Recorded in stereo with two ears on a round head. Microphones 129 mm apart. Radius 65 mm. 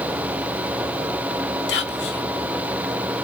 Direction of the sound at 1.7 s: 85° left.